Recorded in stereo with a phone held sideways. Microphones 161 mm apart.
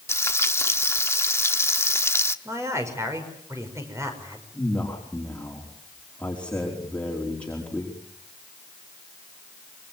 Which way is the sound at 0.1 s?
15° left (ahead or behind).